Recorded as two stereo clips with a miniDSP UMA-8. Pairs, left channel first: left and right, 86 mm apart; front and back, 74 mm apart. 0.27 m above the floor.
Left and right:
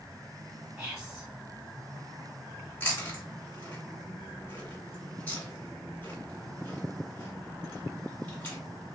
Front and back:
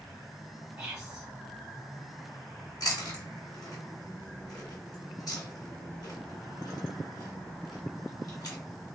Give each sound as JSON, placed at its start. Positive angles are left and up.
{"t": 0.8, "sound": "whispering", "azimuth_deg": -145, "distance_m": 1.5}
{"t": 2.8, "sound": "chewing", "azimuth_deg": 25, "distance_m": 1.9}